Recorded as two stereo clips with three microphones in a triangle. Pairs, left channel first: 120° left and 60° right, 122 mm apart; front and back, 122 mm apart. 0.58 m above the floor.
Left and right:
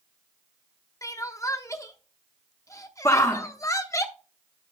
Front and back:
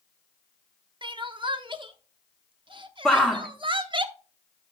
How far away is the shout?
About 1.0 m.